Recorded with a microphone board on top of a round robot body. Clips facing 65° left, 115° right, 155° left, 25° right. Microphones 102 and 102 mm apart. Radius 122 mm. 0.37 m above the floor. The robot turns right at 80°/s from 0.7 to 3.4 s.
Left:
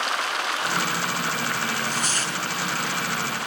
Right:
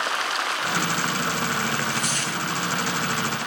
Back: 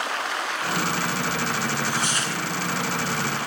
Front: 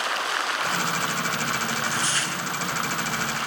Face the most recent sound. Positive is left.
turn(degrees=-155)